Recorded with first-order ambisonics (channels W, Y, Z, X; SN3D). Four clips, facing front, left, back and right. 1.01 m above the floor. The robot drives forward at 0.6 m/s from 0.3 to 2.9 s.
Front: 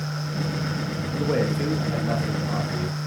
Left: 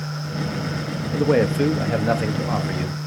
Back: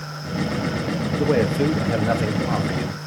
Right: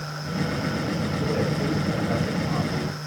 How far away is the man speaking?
About 1.6 m.